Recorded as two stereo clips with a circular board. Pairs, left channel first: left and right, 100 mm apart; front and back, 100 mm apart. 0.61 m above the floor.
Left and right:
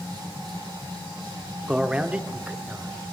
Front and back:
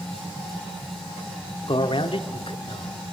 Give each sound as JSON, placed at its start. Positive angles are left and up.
{"t": 1.7, "sound": "a man speaking", "azimuth_deg": -10, "distance_m": 1.1}